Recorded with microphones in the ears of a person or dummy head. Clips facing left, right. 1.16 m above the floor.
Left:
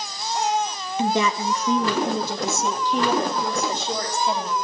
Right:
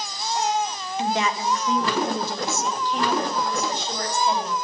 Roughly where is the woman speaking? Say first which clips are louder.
Left 3 dB; left.